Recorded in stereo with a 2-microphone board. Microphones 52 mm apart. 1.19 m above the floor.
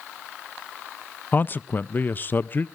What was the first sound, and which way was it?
A man speaking, 35° left (ahead or behind).